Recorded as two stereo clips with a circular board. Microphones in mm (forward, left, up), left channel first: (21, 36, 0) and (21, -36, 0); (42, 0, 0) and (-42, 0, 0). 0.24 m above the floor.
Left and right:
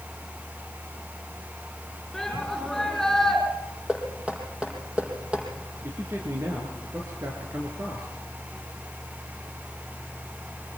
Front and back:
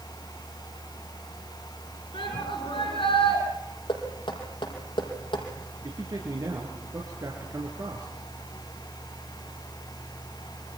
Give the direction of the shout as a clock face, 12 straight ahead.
12 o'clock.